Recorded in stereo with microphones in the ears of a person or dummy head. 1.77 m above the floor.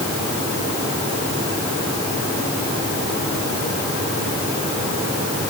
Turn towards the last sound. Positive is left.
No sound to turn to.